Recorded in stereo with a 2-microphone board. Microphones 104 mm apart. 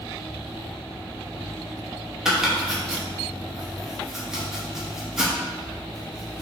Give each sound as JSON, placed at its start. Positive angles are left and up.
{"t": 2.2, "sound": "chopping", "side_deg": -5, "distance_m": 0.8}